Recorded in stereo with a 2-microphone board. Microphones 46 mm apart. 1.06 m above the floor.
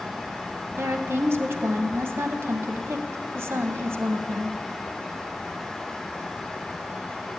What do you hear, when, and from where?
0.8 s a woman speaking: 60° right (ahead or behind), 0.9 m